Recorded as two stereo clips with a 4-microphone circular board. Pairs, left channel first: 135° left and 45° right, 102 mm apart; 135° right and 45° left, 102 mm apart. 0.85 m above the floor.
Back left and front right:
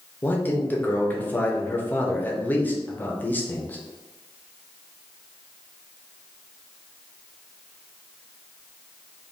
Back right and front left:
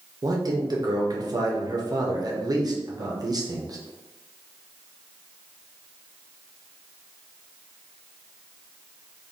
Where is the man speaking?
70° left, 0.6 m.